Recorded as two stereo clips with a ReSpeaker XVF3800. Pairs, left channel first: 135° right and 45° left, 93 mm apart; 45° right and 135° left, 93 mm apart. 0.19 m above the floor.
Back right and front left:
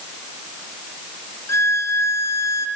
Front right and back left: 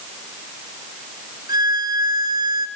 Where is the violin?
170° left, 1.9 m.